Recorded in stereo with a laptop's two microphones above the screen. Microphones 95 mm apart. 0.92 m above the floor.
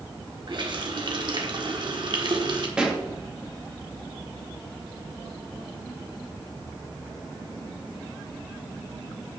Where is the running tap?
55° right (ahead or behind), 1.7 m.